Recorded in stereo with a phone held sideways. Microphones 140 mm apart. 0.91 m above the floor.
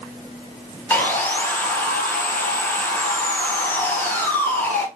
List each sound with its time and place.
0.9 s sawing: 15° left (ahead or behind), 1.9 m